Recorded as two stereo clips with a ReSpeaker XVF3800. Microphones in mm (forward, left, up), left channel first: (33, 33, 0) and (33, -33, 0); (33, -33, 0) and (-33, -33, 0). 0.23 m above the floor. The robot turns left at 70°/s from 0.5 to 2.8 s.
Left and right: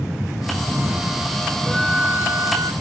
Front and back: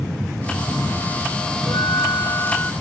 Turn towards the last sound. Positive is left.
turn(degrees=-75)